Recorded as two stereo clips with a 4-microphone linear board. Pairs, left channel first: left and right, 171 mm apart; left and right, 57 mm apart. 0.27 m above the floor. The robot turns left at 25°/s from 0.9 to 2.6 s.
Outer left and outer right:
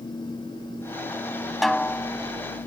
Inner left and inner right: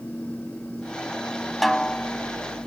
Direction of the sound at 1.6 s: Centre (ahead or behind).